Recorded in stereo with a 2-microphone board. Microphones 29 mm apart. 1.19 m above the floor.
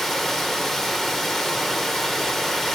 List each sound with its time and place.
0.0 s running water: 10° left (ahead or behind), 1.3 m